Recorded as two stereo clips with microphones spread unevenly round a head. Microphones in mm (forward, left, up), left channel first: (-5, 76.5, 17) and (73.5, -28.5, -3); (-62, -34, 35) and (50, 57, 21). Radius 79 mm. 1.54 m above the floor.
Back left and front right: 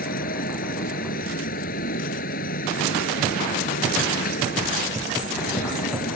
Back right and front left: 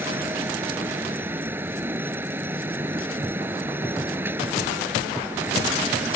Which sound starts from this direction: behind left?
A fan, at 0.0 s.